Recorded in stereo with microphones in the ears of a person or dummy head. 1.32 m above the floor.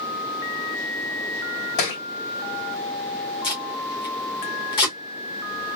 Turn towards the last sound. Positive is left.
turn(degrees=25)  # may be behind; listen again after turning